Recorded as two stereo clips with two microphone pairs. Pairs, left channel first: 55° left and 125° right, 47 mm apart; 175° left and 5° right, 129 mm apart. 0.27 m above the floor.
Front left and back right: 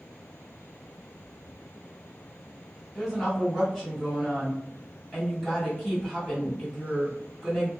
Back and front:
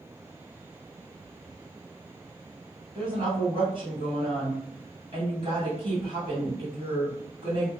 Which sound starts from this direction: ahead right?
A woman speaking, at 3.0 s.